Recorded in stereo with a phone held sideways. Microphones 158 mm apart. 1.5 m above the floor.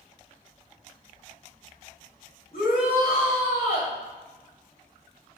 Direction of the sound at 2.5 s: 80° left.